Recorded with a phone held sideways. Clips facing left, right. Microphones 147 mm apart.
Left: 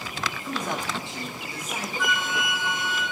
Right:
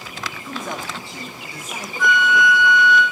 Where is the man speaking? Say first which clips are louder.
Right 1 dB; 15° left (ahead or behind), 0.9 m; by 1.9 s 20° left (ahead or behind), 1.1 m.